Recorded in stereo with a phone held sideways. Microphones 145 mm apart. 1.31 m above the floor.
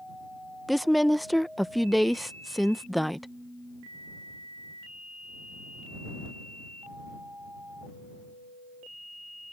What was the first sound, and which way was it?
A woman speaking, centre (ahead or behind).